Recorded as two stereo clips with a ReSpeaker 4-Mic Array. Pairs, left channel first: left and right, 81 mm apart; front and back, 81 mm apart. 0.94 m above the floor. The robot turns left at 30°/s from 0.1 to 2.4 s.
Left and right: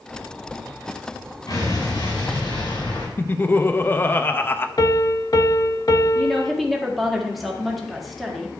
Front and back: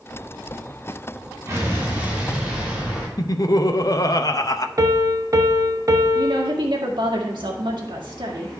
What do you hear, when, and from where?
1.5 s an explosion: 125° left, 4.5 m; by 3.1 s 100° left, 4.5 m
3.2 s laughter: 30° left, 0.7 m
4.8 s a piano: 135° left, 0.8 m
6.2 s a woman speaking: straight behind, 1.8 m